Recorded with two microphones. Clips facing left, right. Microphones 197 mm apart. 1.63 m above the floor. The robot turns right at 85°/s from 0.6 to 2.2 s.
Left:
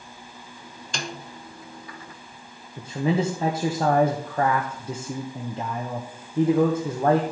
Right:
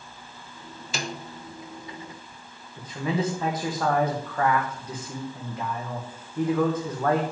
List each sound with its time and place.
0.9 s a snare drum: 5° right (ahead or behind), 0.8 m; by 1.2 s 10° left (ahead or behind), 0.8 m
2.8 s a man speaking: 30° left (ahead or behind), 1.0 m